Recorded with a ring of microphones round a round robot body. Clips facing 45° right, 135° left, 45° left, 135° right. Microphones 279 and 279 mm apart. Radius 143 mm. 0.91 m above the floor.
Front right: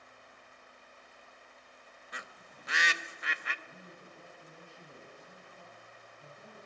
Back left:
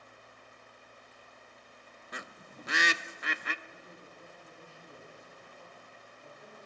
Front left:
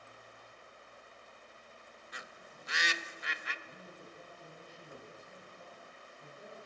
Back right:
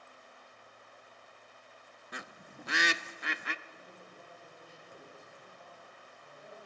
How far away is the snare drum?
I don't hear a snare drum.